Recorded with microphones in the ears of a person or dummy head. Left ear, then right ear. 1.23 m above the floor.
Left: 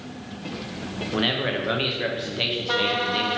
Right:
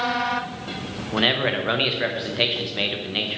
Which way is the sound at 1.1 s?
15° right (ahead or behind).